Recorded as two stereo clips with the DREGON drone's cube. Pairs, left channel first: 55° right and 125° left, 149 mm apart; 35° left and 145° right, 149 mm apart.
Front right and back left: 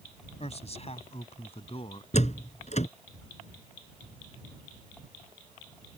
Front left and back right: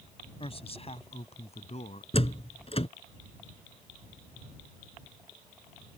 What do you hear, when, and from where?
0.4 s a man speaking: 15° right; by 2.0 s 5° right
2.1 s a door slam: 15° right